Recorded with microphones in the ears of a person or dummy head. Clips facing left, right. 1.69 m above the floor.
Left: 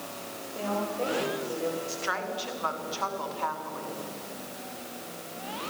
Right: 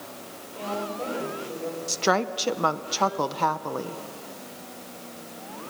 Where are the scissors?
No scissors in this recording.